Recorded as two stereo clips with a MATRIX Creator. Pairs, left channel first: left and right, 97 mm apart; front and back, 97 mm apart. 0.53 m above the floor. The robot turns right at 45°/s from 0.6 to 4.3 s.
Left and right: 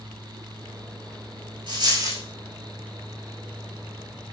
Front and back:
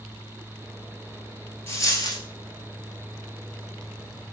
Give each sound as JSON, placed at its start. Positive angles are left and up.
{"t": 1.7, "sound": "a dropped coin", "azimuth_deg": -60, "distance_m": 1.1}